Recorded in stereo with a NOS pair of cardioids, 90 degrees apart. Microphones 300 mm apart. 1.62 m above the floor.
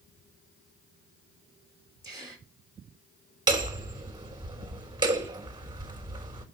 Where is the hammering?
15° right, 4 m.